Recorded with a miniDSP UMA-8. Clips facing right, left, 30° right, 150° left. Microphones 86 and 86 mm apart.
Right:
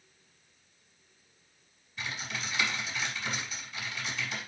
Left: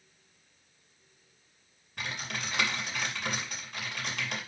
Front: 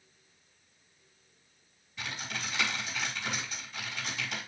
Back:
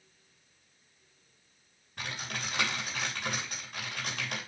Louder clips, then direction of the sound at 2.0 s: Left 1 dB, even; 115° left.